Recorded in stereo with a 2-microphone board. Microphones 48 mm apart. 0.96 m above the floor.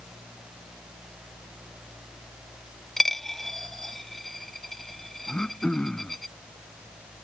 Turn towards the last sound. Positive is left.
turn(degrees=15)  # may be behind; listen again after turning